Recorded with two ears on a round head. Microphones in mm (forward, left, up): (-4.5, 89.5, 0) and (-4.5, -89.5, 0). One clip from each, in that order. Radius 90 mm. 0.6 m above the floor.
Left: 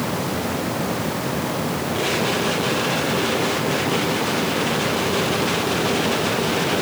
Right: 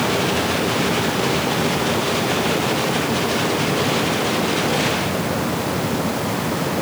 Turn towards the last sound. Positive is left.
No sound to turn to.